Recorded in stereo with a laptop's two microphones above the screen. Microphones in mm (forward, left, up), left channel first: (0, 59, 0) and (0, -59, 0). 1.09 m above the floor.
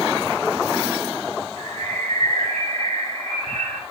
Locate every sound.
1.6 s a bird: 70° right (ahead or behind), 2.5 m